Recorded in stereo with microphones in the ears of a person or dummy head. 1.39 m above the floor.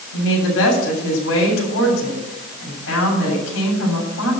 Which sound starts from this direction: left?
A woman speaking, at 0.1 s.